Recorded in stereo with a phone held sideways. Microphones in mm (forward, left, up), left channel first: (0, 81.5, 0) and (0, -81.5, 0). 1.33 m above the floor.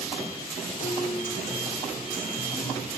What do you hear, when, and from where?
0.8 s a guitar: 55° left (ahead or behind), 2.5 m